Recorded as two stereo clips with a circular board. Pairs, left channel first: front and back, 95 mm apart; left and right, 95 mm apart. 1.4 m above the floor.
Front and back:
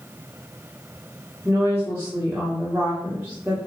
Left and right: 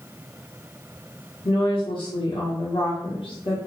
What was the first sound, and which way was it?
A woman speaking, 110° left.